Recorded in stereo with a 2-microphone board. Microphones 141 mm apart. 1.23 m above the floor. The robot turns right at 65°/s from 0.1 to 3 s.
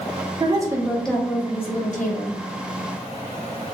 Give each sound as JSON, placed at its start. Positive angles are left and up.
{"t": 0.4, "sound": "a woman speaking", "azimuth_deg": -35, "distance_m": 0.6}